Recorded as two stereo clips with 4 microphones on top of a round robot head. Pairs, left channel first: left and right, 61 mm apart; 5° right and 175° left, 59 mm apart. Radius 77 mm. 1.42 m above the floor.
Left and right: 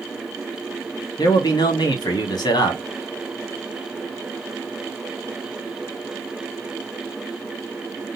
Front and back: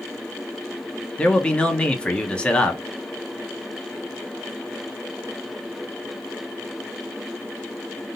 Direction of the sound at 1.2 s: 70° left.